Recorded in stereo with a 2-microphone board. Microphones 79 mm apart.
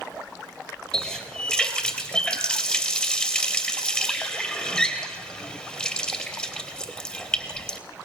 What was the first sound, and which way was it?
A running tap, 10° left (ahead or behind).